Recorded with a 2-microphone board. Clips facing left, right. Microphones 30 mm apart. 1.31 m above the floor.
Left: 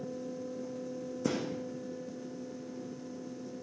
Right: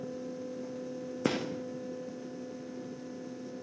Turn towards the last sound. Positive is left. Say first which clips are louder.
# right 2 dB
turn(degrees=-50)  # may be behind; listen again after turning